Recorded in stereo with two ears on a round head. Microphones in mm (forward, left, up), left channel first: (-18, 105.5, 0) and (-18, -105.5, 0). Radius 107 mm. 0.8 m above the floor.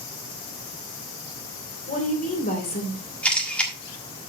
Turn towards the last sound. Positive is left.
turn(degrees=5)  # may be behind; listen again after turning